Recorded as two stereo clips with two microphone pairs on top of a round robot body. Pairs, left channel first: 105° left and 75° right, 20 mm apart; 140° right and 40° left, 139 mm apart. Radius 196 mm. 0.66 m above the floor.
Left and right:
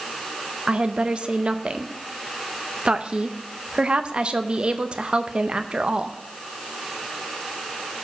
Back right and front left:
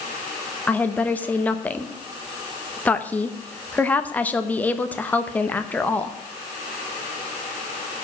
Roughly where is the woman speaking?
Right.